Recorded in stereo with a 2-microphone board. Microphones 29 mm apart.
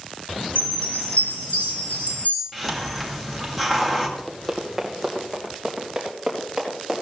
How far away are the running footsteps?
About 1.7 m.